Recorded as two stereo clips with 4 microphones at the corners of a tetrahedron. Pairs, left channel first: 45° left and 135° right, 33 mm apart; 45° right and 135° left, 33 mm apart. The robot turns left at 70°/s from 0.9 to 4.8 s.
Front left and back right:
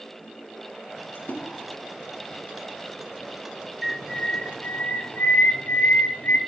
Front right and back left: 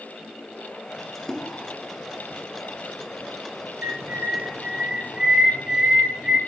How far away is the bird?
About 0.9 m.